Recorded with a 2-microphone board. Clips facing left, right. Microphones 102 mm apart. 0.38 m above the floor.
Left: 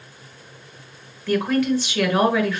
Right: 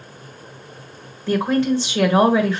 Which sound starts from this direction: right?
A woman speaking, at 1.3 s.